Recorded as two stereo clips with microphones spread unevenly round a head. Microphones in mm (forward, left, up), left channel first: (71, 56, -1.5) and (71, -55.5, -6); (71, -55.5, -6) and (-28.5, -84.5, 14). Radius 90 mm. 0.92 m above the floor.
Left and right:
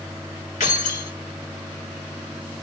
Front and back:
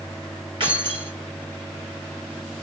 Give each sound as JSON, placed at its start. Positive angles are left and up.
{"t": 0.6, "sound": "keys jangling", "azimuth_deg": 130, "distance_m": 1.4}